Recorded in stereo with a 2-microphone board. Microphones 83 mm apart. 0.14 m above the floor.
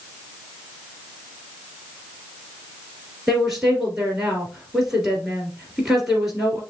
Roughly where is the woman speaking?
Centre.